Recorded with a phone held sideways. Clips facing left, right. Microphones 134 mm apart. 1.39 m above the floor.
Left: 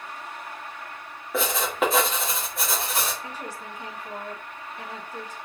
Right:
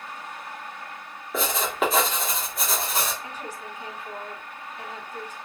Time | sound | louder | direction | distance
1.3 | writing | left 1 dB | centre (ahead or behind) | 1.4 m
3.2 | a woman speaking | even | 35° left (ahead or behind) | 2.5 m